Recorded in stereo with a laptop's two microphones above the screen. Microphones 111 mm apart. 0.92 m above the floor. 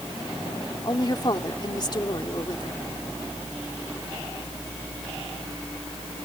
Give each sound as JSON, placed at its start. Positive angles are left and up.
{"t": 0.8, "sound": "a woman speaking", "side_deg": 40}